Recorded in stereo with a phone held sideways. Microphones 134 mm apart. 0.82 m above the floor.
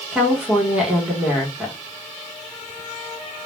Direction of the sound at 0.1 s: 10° right (ahead or behind).